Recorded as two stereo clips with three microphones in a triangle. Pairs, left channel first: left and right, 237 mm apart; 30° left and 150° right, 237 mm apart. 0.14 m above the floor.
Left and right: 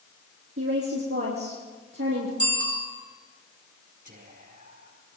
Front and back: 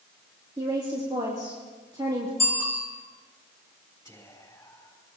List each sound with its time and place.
0.6 s a woman speaking: 80° right, 4 m
2.4 s a bicycle bell: 75° right, 6.5 m
4.0 s whispering: 45° right, 4 m